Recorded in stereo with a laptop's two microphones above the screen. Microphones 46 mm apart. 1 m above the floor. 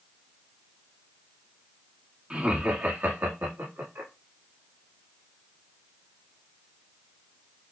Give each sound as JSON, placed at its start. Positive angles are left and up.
{"t": 2.3, "sound": "laughter", "side_deg": -20, "distance_m": 1.6}